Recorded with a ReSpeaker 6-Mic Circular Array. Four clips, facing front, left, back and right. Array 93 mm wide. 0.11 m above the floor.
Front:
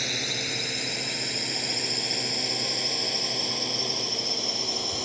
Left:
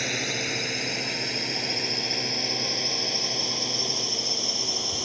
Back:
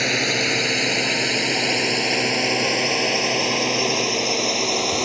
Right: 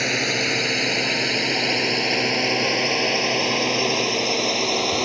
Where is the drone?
150° right; by 5.0 s 130° right.